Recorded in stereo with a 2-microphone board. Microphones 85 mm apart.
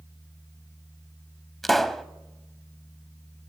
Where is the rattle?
No rattle in this recording.